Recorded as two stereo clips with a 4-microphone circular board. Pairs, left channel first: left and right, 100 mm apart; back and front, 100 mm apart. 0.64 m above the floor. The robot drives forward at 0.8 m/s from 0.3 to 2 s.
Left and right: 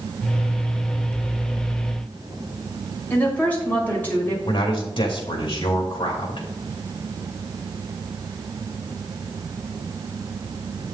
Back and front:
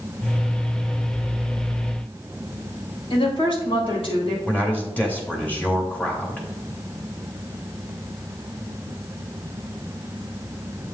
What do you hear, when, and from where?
3.1 s a woman speaking: 160° left, 3 m
4.5 s a man speaking: 110° left, 2.5 m